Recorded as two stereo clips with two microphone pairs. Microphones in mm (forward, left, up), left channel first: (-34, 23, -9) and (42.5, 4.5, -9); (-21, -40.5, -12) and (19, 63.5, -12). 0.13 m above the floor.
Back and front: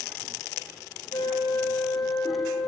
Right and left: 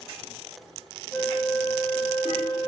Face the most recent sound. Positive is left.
turn(degrees=180)